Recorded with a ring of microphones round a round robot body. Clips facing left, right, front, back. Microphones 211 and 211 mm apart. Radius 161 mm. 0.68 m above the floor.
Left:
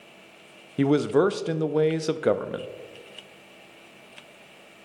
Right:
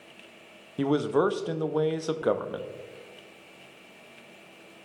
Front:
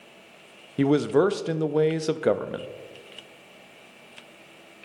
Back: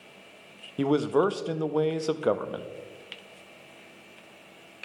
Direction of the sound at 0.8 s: 50° left.